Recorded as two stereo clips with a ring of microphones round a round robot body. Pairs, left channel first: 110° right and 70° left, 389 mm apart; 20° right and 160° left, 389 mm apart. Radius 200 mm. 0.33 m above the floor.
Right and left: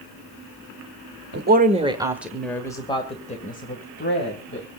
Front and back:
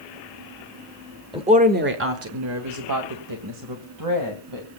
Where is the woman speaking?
95° left, 1.4 m; by 4.7 s 170° right, 3 m.